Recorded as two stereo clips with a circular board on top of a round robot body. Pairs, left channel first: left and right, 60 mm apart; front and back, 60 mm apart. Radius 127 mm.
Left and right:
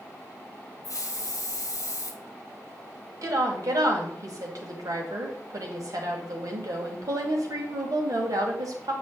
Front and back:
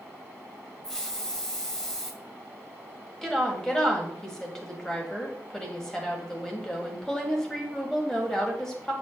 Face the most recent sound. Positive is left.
turn(degrees=-80)